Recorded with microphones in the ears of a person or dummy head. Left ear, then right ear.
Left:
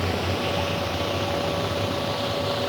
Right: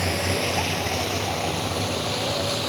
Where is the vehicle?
60° right (ahead or behind); by 2.7 s 65° right (ahead or behind).